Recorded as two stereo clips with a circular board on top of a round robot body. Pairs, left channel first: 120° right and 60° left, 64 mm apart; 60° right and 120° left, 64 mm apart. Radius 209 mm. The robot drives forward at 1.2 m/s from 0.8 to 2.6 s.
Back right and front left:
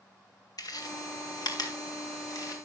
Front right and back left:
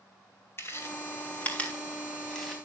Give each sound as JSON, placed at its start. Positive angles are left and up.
{"t": 0.6, "sound": "chewing", "azimuth_deg": -105, "distance_m": 2.5}